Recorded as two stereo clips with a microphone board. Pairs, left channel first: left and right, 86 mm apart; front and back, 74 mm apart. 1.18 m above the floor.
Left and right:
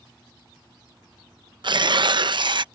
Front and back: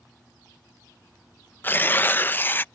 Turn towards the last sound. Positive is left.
turn(degrees=-65)